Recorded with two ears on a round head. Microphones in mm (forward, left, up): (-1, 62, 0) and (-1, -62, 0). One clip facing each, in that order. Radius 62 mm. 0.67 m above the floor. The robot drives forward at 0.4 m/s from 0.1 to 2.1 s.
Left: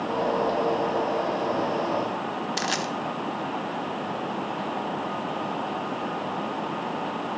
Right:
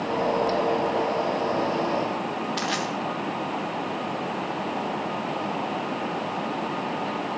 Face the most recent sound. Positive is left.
turn(degrees=55)  # may be behind; listen again after turning